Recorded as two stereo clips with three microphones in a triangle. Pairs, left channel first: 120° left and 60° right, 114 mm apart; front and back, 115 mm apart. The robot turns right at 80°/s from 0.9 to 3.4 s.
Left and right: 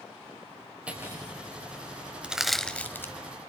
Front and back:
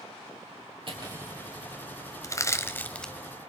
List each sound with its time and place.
0.9 s cutlery clinking: 140° right, 5 m; by 1.3 s 105° right, 5 m
2.2 s crushing: 10° left, 1.1 m; by 3.1 s 80° left, 1.1 m